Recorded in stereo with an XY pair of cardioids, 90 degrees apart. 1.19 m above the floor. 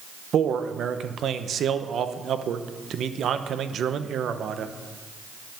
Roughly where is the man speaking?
Ahead right.